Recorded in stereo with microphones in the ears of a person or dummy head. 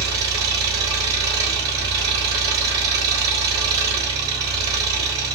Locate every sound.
0.0 s an engine running: 20° right (ahead or behind), 3 m